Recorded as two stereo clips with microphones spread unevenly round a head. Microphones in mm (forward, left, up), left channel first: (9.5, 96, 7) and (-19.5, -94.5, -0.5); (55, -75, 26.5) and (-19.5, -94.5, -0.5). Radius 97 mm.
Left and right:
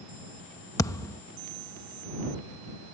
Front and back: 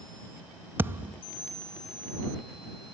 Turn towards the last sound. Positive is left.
turn(degrees=115)